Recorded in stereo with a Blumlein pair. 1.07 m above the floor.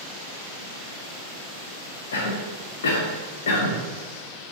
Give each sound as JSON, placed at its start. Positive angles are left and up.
{"t": 2.1, "sound": "a cough", "azimuth_deg": 60, "distance_m": 0.9}